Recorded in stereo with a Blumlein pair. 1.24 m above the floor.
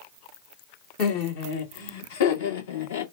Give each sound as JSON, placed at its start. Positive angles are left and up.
{"t": 1.0, "sound": "laughter", "azimuth_deg": 45, "distance_m": 1.4}